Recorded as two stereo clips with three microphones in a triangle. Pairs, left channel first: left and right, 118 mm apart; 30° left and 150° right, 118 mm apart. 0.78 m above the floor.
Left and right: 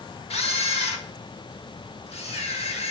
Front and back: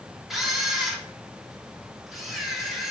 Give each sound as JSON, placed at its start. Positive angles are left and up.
{"t": 0.3, "sound": "a camera shutter", "azimuth_deg": 120, "distance_m": 0.6}